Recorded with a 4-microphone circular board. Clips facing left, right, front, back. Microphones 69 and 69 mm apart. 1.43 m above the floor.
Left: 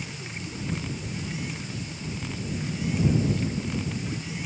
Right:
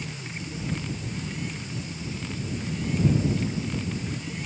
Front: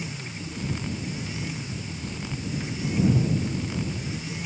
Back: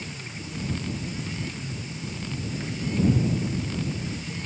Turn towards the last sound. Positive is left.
No sound to turn to.